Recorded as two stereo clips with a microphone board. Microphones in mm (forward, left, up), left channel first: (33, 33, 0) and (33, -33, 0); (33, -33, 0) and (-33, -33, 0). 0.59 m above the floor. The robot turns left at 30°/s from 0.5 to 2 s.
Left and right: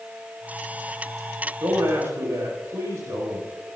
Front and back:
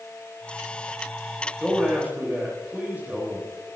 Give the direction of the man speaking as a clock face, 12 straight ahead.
4 o'clock.